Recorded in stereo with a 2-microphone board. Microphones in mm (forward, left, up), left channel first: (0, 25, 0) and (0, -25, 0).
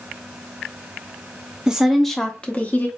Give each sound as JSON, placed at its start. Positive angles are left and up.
{"t": 1.7, "sound": "a woman speaking", "side_deg": -15, "distance_m": 0.6}